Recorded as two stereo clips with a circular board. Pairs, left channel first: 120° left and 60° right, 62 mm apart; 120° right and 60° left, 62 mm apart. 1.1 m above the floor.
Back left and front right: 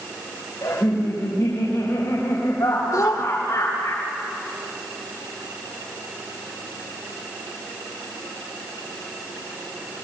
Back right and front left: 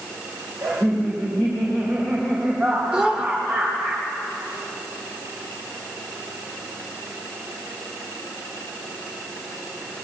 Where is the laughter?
100° left, 4.5 m.